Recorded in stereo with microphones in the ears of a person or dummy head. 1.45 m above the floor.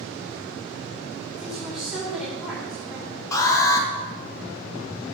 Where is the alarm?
20° left (ahead or behind), 1.5 m.